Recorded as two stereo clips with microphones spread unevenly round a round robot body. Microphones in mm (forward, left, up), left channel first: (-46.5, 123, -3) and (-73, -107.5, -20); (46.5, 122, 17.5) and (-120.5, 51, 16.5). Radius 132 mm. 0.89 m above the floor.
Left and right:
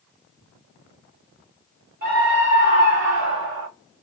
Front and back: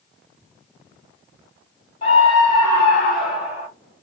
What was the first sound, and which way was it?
A scream, 45° right.